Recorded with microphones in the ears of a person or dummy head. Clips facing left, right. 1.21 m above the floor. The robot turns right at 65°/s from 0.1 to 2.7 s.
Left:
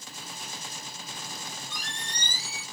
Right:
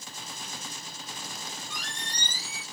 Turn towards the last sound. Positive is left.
turn(degrees=95)